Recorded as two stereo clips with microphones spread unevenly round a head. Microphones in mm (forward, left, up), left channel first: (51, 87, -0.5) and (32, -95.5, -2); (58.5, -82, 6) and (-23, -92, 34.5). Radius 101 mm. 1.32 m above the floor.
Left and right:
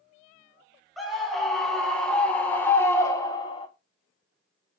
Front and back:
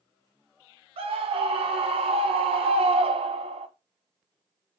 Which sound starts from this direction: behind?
A scream, at 1.0 s.